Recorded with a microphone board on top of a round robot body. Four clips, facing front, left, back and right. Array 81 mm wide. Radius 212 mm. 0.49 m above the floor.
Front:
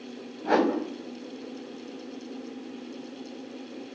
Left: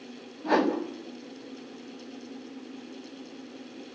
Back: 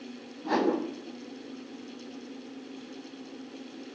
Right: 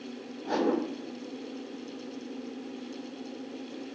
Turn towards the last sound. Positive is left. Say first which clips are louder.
# left 3 dB, front 3 dB
turn(degrees=20)